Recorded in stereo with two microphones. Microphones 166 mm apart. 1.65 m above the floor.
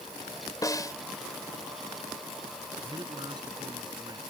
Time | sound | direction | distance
0.6 | a snare drum | 20° left (ahead or behind) | ?
2.8 | a man speaking | 25° right (ahead or behind) | ?